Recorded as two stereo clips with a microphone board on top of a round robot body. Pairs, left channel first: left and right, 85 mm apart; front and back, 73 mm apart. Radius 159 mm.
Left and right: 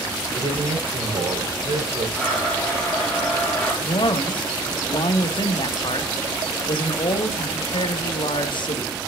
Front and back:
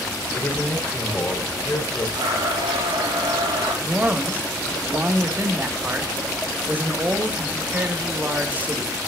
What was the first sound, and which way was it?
A man speaking, 60° right.